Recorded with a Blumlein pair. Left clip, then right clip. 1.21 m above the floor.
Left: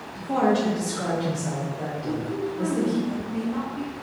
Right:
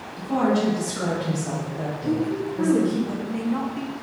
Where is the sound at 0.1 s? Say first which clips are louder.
Even; 20° left, 1.8 m; by 3.0 s 55° right, 0.9 m.